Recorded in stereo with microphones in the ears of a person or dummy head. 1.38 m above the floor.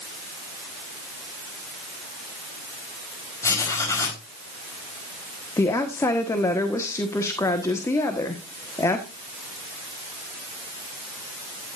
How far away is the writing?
About 4 m.